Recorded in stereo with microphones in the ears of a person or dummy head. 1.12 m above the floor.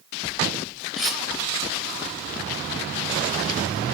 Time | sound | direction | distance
1.0 | cutlery clinking | 5° left (ahead or behind) | 0.8 m